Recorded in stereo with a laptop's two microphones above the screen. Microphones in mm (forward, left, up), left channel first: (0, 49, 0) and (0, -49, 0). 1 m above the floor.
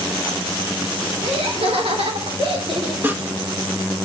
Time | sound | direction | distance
1.2 | laughter | 80° right | 3.5 m
3.0 | sawing | 20° right (ahead or behind) | 1.2 m